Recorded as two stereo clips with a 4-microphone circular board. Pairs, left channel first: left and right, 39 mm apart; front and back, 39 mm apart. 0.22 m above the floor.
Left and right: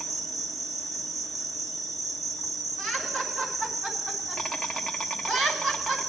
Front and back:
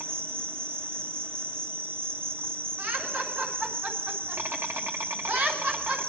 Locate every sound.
0.0 s an insect: 175° right, 1.0 m
2.8 s laughter: 135° right, 2.5 m